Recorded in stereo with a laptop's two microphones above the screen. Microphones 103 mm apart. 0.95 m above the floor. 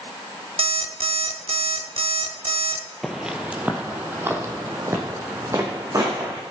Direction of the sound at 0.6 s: 65° right (ahead or behind).